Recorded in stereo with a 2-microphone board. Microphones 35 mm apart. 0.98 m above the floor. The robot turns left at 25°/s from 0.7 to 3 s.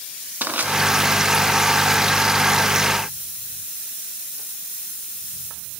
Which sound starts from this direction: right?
Crushing, at 0.4 s.